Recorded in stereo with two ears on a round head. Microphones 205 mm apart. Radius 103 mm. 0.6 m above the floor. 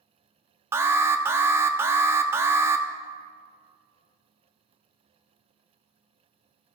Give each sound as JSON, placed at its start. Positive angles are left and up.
{"t": 0.7, "sound": "an alarm", "side_deg": -10, "distance_m": 0.6}